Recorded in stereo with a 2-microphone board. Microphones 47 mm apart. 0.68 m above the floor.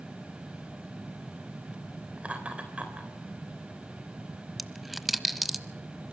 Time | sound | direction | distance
2.2 | laughter | 25° right (ahead or behind) | 3 m
4.6 | a dropped coin | centre (ahead or behind) | 0.8 m